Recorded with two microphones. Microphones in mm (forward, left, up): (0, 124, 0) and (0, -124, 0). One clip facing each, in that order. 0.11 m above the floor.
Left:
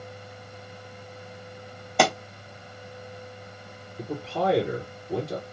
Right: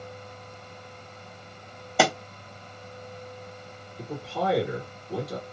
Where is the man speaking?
20° left (ahead or behind), 2 m.